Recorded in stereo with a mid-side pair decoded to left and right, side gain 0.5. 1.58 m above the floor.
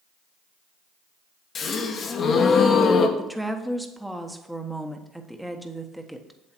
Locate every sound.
1.6 s a gasp: 45° left, 1.4 m
3.2 s a woman speaking: 5° right, 1.4 m